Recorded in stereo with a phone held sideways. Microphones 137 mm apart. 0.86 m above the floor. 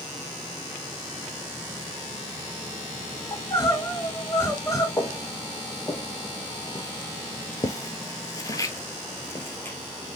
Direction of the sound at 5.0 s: 20° left (ahead or behind).